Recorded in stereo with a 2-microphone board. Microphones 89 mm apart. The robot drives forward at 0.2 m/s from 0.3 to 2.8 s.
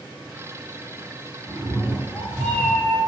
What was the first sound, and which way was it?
A cat meowing, 15° left (ahead or behind).